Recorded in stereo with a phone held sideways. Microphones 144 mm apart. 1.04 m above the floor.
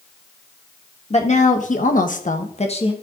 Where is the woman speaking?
50° left (ahead or behind), 1.3 m; by 2.9 s 40° left (ahead or behind), 1.3 m.